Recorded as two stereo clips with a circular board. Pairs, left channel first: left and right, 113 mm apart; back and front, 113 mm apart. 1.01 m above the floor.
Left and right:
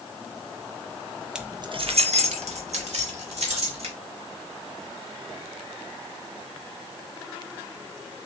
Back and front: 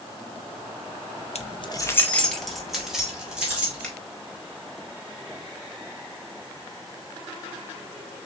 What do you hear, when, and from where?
1.4 s keys jangling: 170° right, 0.5 m; by 3.9 s 80° right, 2.5 m
3.8 s a finger snap: 100° right, 1.7 m